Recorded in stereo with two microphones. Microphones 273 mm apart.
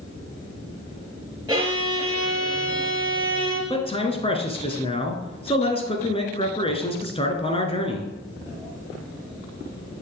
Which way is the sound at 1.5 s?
15° right (ahead or behind).